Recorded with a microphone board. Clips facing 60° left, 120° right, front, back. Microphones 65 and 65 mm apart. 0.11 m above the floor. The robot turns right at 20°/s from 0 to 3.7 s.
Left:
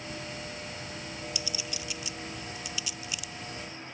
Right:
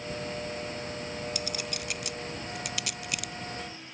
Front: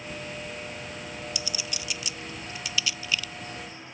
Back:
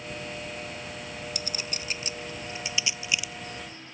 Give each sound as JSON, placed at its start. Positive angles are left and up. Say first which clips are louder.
{"t": 1.4, "sound": "a clink", "louder": "right 3 dB, even", "azimuth_deg": -145}